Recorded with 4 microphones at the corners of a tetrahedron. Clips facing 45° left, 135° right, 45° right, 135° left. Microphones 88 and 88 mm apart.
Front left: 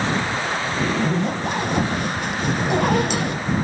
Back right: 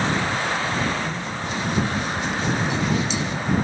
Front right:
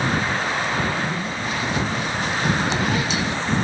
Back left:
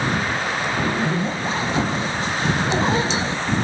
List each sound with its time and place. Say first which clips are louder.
0.8 s a zipper: front left 5 dB, back left 3 dB; 75° left